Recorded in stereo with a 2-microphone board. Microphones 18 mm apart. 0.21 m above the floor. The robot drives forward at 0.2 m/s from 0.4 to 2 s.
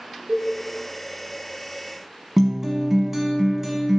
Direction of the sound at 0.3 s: 75° right (ahead or behind).